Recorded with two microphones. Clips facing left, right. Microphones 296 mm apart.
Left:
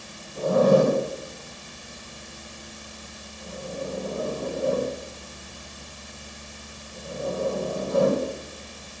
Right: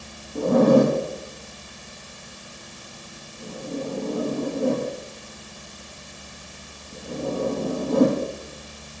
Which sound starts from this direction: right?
A zipper, at 0.3 s.